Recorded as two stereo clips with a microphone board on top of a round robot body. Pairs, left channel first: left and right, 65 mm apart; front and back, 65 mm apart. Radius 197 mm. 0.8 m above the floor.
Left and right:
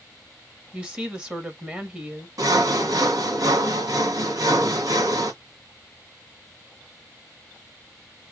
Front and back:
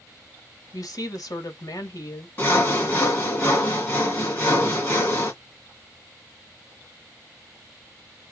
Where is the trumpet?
I don't hear a trumpet.